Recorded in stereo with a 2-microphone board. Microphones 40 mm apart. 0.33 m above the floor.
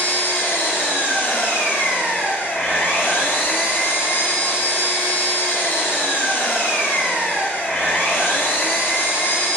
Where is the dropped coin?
I don't hear a dropped coin.